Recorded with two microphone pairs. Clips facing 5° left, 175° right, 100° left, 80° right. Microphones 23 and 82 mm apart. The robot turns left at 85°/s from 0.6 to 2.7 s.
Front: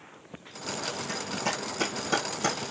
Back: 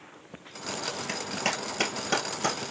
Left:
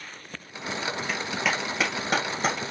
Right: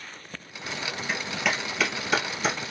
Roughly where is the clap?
Behind right.